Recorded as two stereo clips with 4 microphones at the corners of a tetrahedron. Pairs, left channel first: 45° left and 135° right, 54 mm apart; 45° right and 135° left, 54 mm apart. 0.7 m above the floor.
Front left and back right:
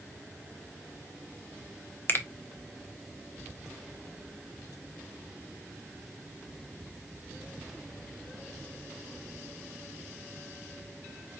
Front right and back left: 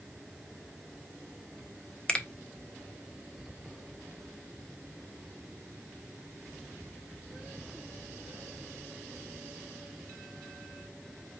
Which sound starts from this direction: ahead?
A finger snap, at 2.1 s.